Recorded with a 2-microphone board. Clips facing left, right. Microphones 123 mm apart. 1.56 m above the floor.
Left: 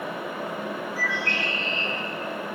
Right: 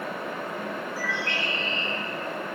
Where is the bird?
70° left (ahead or behind), 3.5 m.